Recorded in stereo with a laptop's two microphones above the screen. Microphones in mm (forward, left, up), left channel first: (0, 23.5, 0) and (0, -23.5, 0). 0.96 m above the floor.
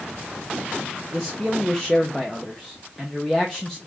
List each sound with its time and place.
1.1 s a man speaking: 5° left (ahead or behind), 0.9 m